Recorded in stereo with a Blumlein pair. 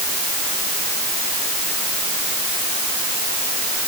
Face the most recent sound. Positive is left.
No sound to turn to.